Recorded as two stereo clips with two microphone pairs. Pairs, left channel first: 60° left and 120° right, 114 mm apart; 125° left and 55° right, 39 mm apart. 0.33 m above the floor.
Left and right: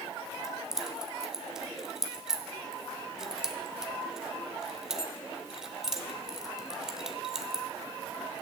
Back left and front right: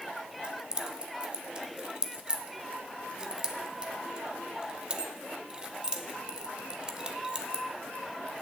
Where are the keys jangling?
40° right, 1.0 m.